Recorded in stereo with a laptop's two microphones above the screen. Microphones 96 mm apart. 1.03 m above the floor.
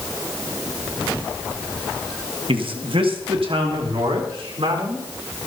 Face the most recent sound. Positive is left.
turn(degrees=-70)  # may be behind; listen again after turning